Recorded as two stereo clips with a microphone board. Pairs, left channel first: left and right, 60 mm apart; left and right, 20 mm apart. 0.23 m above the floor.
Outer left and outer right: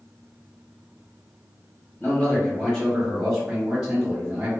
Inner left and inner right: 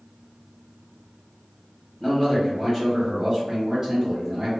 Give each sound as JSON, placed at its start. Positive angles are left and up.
{"t": 2.0, "sound": "a man speaking", "side_deg": 25, "distance_m": 1.4}